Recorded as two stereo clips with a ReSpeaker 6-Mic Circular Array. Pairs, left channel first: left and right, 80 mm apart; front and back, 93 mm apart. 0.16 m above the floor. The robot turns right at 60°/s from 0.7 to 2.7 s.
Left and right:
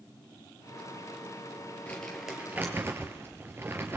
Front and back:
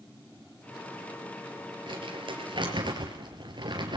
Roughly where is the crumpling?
Behind.